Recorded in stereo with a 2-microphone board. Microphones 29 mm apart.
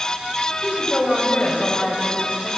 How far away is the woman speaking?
About 2 m.